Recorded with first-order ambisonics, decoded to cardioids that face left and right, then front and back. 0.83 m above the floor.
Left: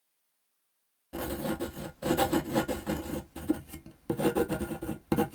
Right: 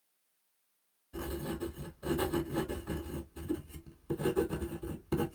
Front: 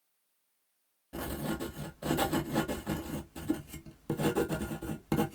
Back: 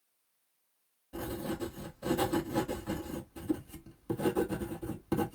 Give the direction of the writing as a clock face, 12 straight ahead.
10 o'clock.